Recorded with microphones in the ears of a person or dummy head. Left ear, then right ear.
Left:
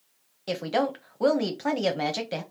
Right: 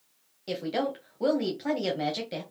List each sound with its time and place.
0.5 s a woman speaking: 35° left (ahead or behind), 1.0 m